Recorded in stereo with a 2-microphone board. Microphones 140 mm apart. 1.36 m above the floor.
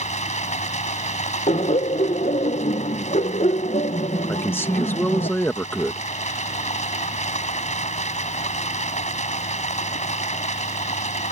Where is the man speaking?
15° left (ahead or behind).